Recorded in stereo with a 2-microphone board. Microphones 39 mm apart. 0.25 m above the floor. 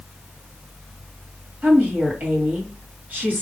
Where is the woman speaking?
45° right (ahead or behind), 3 m.